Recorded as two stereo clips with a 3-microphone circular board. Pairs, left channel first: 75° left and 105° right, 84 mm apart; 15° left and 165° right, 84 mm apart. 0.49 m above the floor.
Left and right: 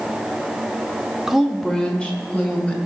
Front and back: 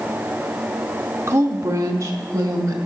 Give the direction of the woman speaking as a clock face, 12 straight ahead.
6 o'clock.